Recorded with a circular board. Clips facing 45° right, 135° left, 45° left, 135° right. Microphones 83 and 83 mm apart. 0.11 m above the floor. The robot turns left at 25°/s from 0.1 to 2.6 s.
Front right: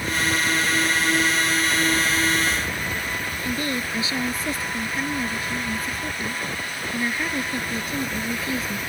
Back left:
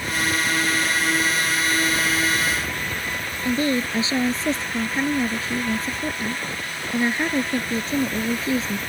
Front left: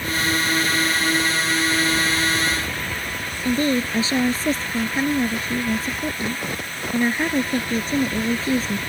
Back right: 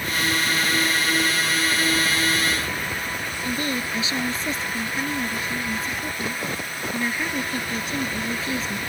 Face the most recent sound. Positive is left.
turn(degrees=85)